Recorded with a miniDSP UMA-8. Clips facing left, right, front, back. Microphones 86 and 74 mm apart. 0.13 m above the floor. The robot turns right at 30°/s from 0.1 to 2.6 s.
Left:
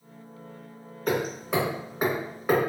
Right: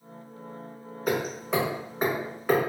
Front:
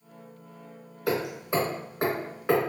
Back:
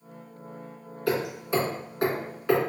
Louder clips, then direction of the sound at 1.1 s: Left 1 dB, back 1 dB; 15° right.